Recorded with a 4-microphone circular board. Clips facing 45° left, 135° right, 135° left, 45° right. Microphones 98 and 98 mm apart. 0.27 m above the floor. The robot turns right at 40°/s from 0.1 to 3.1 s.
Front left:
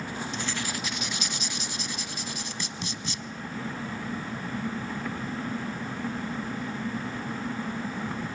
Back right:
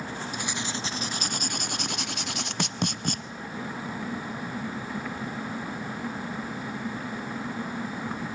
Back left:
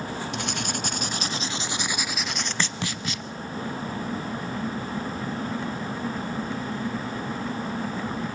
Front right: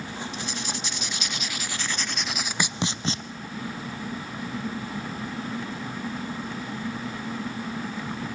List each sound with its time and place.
0.3 s writing: 150° left, 0.6 m; by 3.2 s 100° right, 0.6 m